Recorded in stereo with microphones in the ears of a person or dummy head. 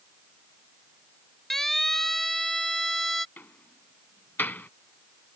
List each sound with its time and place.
1.5 s a siren: centre (ahead or behind)
3.4 s a door slam: 10° left (ahead or behind)